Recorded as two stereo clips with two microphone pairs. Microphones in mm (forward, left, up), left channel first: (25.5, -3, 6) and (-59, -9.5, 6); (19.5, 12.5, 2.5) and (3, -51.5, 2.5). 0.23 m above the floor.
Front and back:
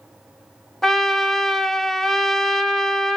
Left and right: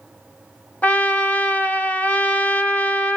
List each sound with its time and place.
0.8 s a trumpet: 90° left, 0.5 m